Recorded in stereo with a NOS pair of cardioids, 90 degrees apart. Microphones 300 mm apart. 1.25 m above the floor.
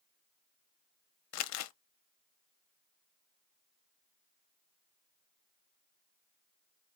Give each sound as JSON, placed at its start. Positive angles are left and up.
{"t": 1.3, "sound": "crumpling", "azimuth_deg": 60, "distance_m": 0.6}